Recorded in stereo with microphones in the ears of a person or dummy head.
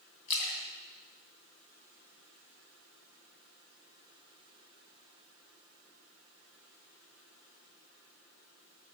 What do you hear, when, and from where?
0.3 s a splash: 50° left (ahead or behind), 2.5 m